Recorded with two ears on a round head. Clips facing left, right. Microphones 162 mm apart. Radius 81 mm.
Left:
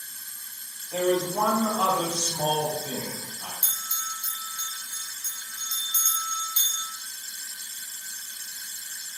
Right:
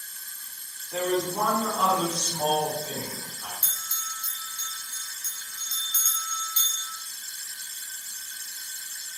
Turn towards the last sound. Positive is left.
turn(degrees=15)  # may be behind; listen again after turning